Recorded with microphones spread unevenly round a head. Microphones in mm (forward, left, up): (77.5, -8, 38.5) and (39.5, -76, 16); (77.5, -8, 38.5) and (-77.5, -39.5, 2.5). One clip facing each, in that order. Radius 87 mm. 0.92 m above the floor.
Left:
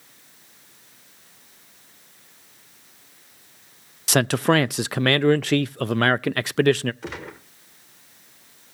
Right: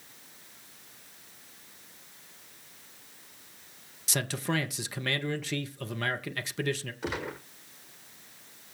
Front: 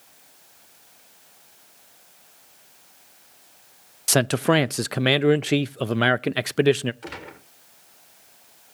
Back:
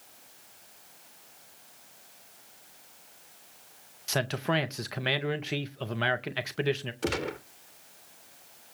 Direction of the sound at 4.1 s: 40° left.